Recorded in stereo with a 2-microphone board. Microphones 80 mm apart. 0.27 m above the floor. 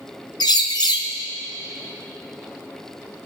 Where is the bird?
75° left (ahead or behind), 1.3 m.